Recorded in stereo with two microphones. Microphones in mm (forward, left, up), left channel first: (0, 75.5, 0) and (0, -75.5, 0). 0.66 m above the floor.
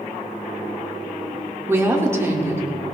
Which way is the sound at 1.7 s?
20° right (ahead or behind).